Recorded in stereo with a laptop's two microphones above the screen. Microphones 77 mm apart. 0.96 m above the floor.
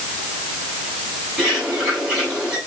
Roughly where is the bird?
Centre.